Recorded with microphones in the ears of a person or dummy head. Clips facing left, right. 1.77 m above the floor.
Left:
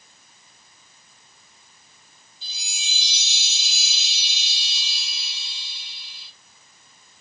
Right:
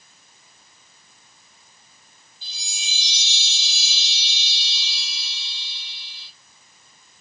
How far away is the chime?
About 1.6 m.